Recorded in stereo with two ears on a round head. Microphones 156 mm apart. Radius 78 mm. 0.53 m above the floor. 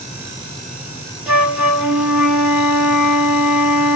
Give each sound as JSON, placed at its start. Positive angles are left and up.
{"t": 1.3, "sound": "a flute", "side_deg": -5, "distance_m": 0.7}